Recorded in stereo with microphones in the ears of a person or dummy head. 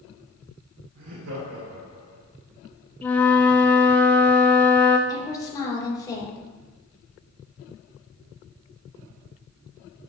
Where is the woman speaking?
20° left (ahead or behind), 1.8 m.